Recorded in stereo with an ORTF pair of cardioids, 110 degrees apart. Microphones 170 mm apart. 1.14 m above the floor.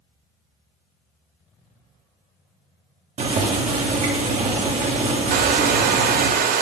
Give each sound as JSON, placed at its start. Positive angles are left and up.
{"t": 3.2, "sound": "boiling", "azimuth_deg": -40, "distance_m": 1.4}
{"t": 5.3, "sound": "a hair dryer", "azimuth_deg": -65, "distance_m": 0.6}